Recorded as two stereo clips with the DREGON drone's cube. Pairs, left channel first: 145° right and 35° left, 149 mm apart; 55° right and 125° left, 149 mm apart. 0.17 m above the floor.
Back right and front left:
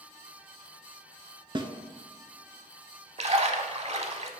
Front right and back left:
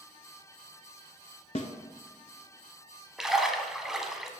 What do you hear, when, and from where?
1.6 s a snare drum: 20° right, 0.6 m
3.2 s a splash: 40° left, 0.6 m